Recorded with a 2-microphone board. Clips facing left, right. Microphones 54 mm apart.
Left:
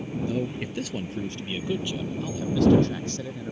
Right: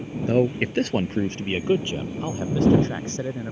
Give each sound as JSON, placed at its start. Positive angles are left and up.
{"t": 0.3, "sound": "a man speaking", "side_deg": -55}